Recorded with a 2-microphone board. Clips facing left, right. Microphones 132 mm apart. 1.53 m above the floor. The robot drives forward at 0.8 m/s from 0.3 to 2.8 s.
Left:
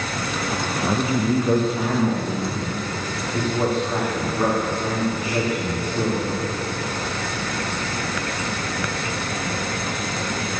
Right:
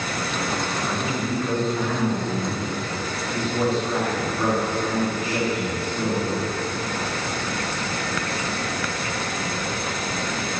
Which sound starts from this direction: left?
A man speaking, at 0.8 s.